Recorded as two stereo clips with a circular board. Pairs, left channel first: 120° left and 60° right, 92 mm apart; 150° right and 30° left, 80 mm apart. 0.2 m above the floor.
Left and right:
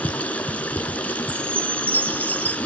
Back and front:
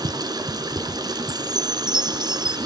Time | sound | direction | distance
0.0 | running water | 50° left | 2 m
1.3 | a chime | 35° right | 0.9 m